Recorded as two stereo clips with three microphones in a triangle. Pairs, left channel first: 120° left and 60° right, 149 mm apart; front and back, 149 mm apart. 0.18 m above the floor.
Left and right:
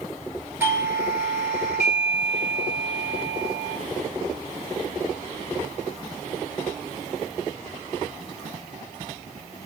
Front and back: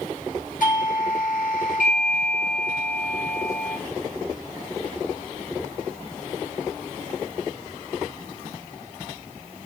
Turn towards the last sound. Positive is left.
turn(degrees=15)